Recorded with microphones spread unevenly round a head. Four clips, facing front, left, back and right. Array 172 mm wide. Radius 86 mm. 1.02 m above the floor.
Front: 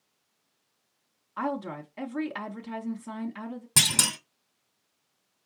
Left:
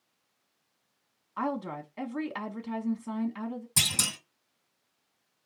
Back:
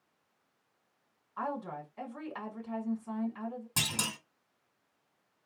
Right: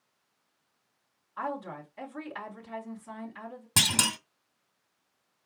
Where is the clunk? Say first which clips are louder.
Right 5 dB, front 8 dB; 50° right, 1.3 m.